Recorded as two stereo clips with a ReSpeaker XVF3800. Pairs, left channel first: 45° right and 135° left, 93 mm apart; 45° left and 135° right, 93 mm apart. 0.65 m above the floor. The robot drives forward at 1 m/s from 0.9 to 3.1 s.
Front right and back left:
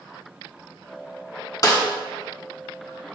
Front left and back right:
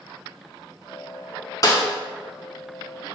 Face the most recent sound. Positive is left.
turn(degrees=-115)